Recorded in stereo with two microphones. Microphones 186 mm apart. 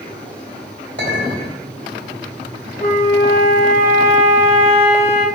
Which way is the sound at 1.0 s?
75° right (ahead or behind).